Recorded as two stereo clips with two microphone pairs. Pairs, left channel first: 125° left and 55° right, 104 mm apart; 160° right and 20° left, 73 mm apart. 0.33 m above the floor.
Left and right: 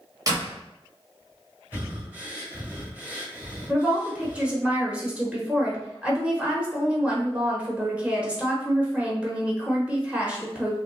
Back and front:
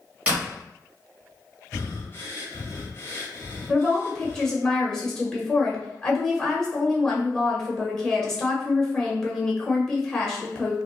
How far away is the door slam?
About 1.3 m.